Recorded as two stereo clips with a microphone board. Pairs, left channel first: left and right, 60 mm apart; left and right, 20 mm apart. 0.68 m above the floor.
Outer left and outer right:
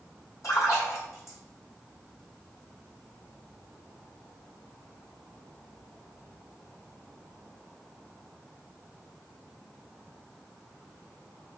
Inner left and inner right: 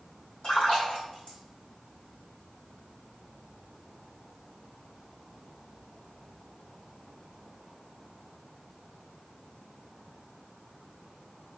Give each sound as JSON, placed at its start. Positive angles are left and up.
{"t": 0.4, "sound": "a splash", "side_deg": 65, "distance_m": 1.7}